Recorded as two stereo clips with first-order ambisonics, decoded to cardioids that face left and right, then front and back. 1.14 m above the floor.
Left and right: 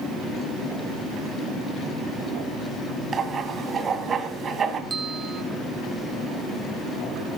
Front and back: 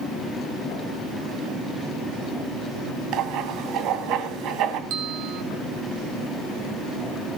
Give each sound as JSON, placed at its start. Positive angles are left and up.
{"t": 3.1, "sound": "writing", "azimuth_deg": -155, "distance_m": 1.8}
{"t": 4.9, "sound": "a bell", "azimuth_deg": -165, "distance_m": 1.3}